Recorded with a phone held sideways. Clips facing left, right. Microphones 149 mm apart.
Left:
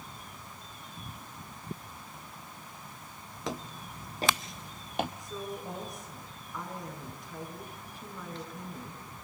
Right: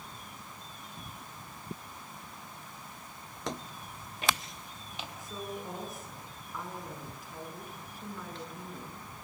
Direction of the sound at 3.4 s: Centre (ahead or behind).